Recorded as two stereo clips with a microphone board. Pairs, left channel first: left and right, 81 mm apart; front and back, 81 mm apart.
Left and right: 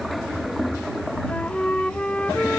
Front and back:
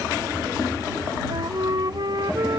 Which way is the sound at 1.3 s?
165° left.